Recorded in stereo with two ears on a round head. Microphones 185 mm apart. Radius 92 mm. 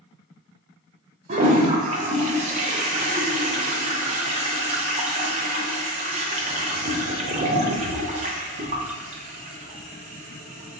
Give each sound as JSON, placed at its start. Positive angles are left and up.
{"t": 1.3, "sound": "a toilet flushing", "side_deg": -35, "distance_m": 0.6}